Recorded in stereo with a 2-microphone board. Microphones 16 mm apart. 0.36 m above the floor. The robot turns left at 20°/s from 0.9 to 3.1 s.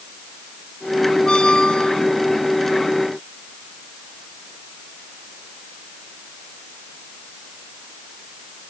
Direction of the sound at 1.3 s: 85° left.